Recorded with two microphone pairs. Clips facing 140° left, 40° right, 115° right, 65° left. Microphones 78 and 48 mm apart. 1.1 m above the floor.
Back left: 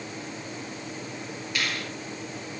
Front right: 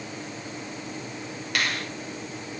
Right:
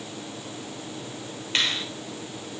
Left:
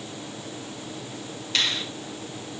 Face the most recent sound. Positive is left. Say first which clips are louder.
# front right 3 dB, even
turn(degrees=-60)